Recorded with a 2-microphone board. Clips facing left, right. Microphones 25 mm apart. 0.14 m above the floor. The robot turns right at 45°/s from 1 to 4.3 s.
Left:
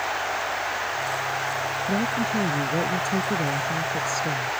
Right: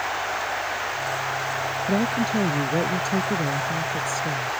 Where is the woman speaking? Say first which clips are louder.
Right 3 dB; 75° right; by 4.5 s 35° left.